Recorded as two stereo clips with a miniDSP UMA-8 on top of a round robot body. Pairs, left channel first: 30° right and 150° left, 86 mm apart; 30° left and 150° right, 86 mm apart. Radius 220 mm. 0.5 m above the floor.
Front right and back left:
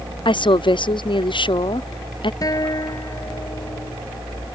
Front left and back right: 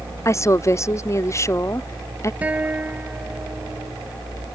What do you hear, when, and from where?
0.2 s a woman speaking: 25° right
2.4 s a guitar: 80° right